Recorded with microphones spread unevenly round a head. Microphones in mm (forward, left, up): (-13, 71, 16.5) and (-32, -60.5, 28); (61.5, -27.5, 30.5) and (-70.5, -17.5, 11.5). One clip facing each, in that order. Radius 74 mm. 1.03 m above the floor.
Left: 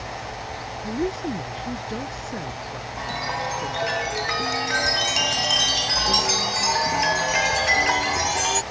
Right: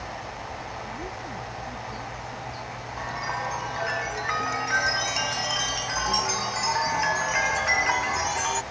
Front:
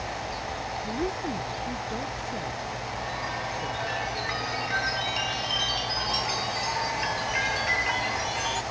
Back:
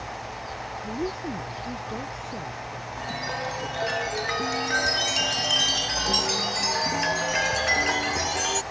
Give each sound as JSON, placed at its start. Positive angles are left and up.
{"t": 0.8, "sound": "a woman speaking", "azimuth_deg": 85}
{"t": 3.0, "sound": "a chime", "azimuth_deg": 135}